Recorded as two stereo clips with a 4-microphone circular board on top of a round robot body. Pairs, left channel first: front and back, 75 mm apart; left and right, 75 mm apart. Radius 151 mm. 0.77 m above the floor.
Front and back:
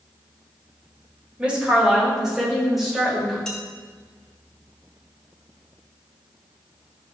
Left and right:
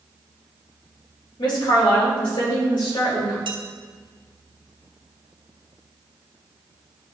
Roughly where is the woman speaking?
Left.